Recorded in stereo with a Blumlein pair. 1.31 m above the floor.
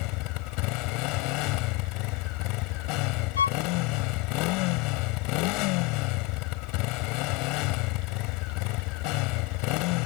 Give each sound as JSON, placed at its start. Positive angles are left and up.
{"t": 0.0, "sound": "a motorcycle", "azimuth_deg": 40}
{"t": 3.4, "sound": "a violin", "azimuth_deg": 70}